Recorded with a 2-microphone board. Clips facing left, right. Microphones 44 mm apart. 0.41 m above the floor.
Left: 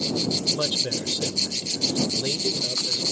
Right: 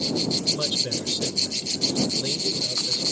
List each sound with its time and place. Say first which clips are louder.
0.5 s a man speaking: left 1 dB; 20° left (ahead or behind)